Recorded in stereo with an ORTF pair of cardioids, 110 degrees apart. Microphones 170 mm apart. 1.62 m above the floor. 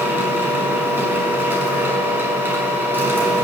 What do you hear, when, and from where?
0.0 s a machine running: 10° right, 5 m